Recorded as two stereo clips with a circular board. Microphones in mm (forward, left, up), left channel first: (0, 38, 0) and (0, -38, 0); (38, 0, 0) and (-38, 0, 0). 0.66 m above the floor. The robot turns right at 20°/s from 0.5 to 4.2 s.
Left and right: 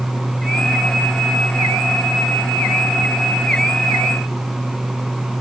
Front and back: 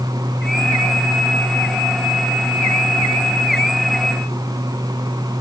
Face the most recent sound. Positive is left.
No sound to turn to.